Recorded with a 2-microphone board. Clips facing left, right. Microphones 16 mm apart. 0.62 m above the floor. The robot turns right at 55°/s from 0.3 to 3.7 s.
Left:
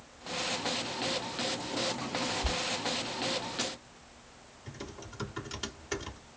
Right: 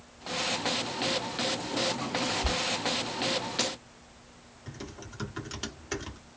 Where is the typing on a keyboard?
10° right (ahead or behind), 1.3 m.